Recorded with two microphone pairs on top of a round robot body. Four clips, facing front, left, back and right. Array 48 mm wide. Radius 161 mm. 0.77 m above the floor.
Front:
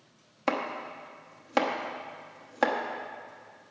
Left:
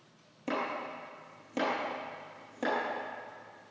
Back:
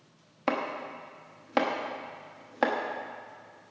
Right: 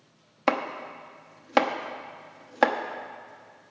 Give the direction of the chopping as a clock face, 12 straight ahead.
3 o'clock.